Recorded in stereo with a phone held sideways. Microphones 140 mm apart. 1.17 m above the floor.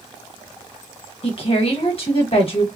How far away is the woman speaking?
About 1.2 m.